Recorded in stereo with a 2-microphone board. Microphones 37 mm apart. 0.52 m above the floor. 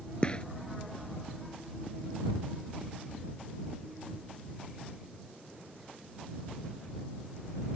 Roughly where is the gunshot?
Left.